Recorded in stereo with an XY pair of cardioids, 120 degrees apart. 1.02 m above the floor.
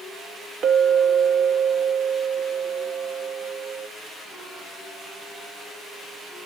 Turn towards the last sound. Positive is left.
turn(degrees=-50)